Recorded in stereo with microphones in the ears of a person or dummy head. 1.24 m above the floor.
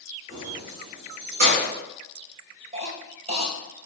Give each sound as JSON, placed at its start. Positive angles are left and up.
{"t": 0.3, "sound": "keys jangling", "side_deg": -15, "distance_m": 3.0}
{"t": 2.7, "sound": "a cough", "side_deg": -25, "distance_m": 1.4}